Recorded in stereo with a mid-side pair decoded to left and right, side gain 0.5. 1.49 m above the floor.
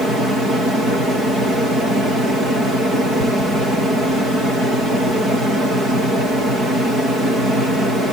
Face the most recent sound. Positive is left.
No sound to turn to.